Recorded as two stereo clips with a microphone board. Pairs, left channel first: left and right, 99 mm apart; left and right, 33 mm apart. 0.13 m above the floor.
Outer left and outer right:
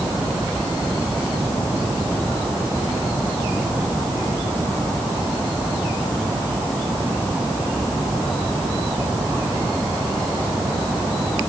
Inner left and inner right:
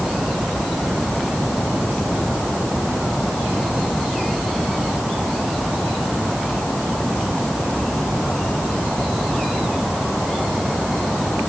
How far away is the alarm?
I don't hear an alarm.